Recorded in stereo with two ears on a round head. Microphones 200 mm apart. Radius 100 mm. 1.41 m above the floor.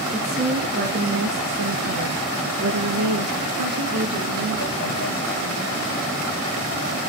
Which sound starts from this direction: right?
A woman speaking, at 0.1 s.